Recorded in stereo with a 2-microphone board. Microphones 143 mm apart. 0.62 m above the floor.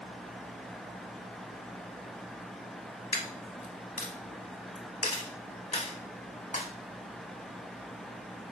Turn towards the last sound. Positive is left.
turn(degrees=55)  # may be behind; listen again after turning